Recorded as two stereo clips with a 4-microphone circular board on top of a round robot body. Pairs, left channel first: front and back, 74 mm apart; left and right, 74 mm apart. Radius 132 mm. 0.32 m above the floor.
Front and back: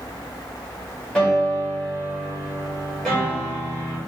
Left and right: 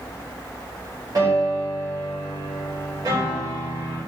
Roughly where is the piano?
Right.